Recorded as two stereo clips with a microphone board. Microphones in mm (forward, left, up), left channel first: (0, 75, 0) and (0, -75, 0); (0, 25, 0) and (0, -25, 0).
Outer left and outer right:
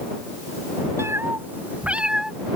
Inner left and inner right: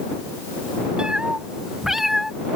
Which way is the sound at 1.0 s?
15° right (ahead or behind).